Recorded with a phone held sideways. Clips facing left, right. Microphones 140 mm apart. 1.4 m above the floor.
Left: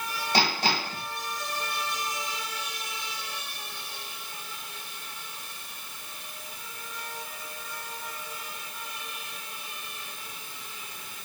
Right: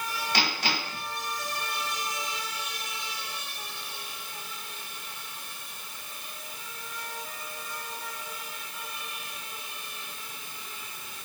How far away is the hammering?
About 6 m.